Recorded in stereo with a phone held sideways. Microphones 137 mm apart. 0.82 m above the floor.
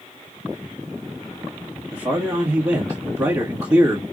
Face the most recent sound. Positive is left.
turn(degrees=-25)  # may be behind; listen again after turning